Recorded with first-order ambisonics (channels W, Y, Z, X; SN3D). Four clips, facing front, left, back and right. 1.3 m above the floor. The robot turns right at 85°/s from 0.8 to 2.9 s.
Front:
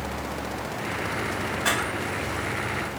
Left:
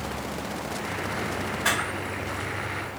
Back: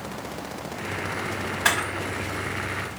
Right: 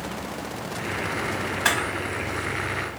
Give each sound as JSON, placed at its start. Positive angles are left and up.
{"t": 1.6, "sound": "a camera shutter", "azimuth_deg": -140, "distance_m": 1.1}